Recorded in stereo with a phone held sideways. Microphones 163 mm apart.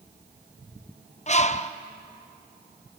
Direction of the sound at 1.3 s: 40° left (ahead or behind).